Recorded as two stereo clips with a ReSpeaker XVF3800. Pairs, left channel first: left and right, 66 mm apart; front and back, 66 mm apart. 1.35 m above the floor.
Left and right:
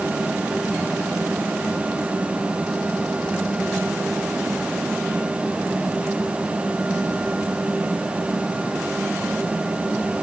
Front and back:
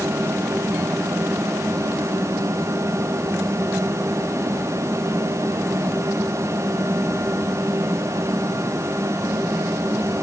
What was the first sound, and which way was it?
Only background noise.